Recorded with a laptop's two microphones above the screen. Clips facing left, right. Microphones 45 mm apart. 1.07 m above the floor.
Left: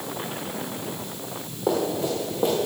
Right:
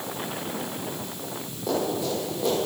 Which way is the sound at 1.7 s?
35° left (ahead or behind).